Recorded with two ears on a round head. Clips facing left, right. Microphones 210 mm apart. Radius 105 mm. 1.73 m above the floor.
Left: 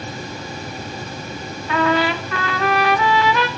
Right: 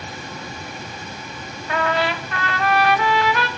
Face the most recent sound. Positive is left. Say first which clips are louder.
# left 4 dB
turn(degrees=65)  # may be behind; listen again after turning